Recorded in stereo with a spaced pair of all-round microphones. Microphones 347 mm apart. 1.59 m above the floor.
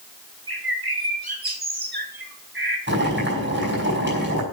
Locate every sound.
0.5 s a bird: 85° right, 1.8 m
2.9 s boiling: 30° right (ahead or behind), 5.5 m